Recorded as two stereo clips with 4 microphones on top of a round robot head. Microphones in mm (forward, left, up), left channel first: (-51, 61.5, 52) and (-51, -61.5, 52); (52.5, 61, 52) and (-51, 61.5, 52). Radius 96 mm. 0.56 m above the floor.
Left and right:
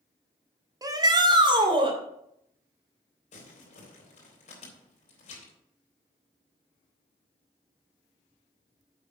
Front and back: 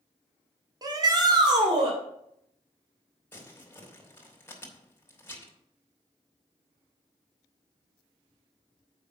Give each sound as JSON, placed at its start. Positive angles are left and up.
{"t": 0.8, "sound": "a shout", "azimuth_deg": -140, "distance_m": 1.7}
{"t": 3.3, "sound": "crumpling", "azimuth_deg": 65, "distance_m": 3.0}